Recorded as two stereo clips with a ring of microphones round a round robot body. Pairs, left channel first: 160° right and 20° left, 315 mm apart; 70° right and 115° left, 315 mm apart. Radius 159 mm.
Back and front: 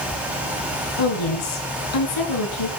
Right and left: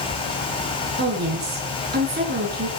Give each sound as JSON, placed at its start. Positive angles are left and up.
{"t": 1.0, "sound": "a woman speaking", "azimuth_deg": 175, "distance_m": 6.5}